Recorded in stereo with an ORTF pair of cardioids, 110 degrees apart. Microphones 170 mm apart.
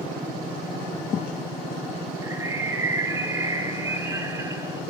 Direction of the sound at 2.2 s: 15° right.